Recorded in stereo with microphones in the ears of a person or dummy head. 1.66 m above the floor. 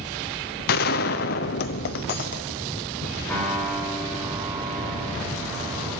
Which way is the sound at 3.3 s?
10° left (ahead or behind).